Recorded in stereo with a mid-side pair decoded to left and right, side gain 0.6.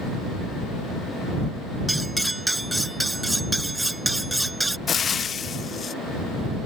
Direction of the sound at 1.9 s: 10° right.